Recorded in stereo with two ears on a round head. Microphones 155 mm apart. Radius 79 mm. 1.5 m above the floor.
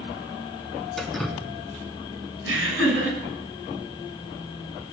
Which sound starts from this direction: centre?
Dripping, at 1.0 s.